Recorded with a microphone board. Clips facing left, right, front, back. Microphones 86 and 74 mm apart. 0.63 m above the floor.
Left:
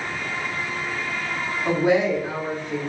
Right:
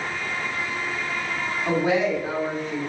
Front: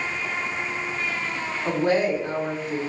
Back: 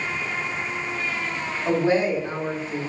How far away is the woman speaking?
About 1.5 m.